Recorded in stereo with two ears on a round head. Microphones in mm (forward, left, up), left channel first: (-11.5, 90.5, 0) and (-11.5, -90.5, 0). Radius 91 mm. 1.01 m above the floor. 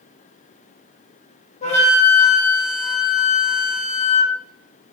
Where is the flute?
35° left (ahead or behind), 0.9 m.